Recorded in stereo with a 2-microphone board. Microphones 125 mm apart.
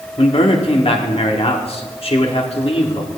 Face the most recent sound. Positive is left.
turn(degrees=50)  # may be behind; listen again after turning